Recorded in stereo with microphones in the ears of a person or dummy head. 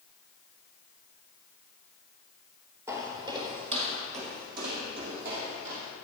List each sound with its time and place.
2.9 s footsteps: 15° right (ahead or behind), 1.7 m; by 5.9 s 65° right (ahead or behind), 3 m